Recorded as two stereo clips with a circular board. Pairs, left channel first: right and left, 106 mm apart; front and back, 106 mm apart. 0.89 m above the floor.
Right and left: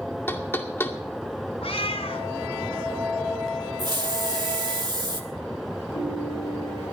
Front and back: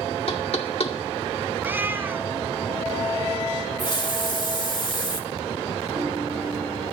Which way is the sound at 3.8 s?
45° left.